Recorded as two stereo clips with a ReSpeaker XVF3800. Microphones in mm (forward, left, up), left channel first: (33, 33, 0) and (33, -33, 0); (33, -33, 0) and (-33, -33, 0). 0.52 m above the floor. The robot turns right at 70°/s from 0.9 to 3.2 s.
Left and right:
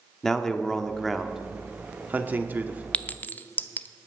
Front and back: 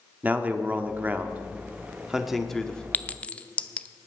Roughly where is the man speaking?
Behind.